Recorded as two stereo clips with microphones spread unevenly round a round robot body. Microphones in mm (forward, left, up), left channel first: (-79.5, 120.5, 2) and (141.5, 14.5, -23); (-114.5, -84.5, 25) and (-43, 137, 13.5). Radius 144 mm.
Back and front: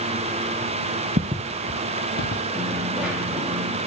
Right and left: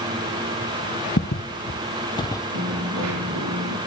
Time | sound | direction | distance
1.2 | footsteps | 85° right | 1.2 m
2.5 | a dropped coin | 60° left | 8.5 m